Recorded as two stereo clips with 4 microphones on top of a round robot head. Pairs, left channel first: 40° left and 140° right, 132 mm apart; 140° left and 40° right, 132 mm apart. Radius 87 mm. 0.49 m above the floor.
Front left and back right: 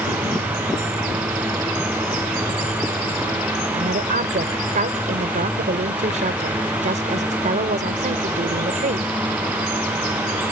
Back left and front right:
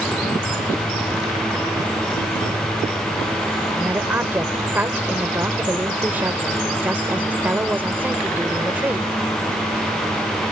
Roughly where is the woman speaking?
Behind right.